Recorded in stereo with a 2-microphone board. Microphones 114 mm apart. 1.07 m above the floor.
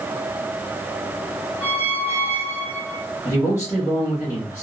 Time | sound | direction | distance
1.6 | a squeak | 60° left (ahead or behind) | 0.9 m
3.2 | a man speaking | 25° left (ahead or behind) | 1.6 m